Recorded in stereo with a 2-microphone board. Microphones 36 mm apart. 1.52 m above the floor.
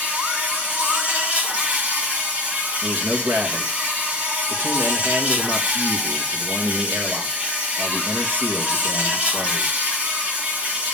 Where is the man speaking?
75° right (ahead or behind), 2.5 m.